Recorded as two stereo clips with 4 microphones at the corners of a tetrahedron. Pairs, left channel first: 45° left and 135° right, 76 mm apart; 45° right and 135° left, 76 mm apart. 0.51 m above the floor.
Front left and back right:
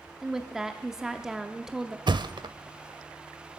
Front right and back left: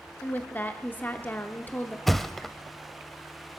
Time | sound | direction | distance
0.2 | a woman speaking | 60° right | 0.7 m
2.1 | a thud | 130° right | 0.5 m